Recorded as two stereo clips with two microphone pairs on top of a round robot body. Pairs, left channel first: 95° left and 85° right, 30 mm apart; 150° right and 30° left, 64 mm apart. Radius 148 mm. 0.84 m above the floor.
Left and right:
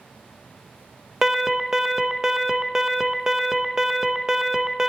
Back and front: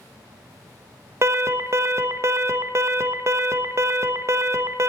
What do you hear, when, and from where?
1.2 s an alarm: 5° right, 1.3 m